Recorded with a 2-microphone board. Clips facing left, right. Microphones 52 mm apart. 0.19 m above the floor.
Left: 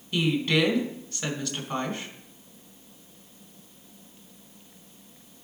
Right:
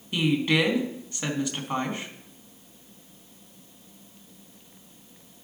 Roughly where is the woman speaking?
Centre.